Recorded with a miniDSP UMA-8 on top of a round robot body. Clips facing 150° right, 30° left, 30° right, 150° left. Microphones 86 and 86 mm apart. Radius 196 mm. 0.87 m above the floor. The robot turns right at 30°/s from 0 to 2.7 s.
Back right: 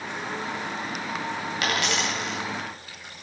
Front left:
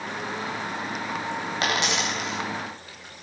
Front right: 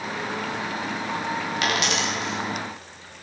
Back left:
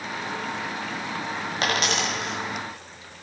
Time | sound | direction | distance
1.6 | a dropped coin | 90° left | 1.7 m